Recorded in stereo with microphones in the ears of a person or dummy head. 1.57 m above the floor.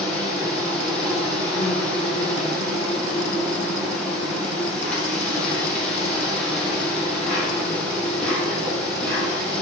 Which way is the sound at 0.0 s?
10° left (ahead or behind).